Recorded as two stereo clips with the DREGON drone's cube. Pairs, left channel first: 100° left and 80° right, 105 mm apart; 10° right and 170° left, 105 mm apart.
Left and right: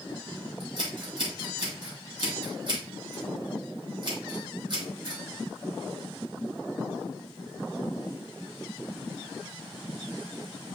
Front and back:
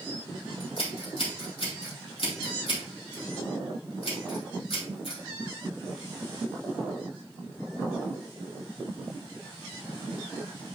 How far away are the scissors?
About 3.5 m.